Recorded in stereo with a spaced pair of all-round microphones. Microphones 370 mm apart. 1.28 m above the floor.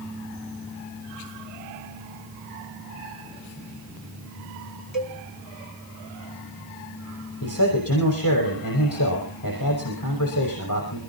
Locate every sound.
4.9 s a cowbell: 65° left (ahead or behind), 4.5 m
7.4 s a man speaking: 60° left (ahead or behind), 6.5 m